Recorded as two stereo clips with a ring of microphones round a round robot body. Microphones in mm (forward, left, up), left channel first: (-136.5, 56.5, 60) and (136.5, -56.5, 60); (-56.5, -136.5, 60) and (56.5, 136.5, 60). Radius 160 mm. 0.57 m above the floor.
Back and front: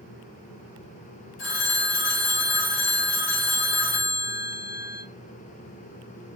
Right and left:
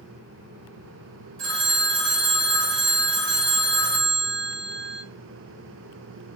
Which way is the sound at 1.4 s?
110° left.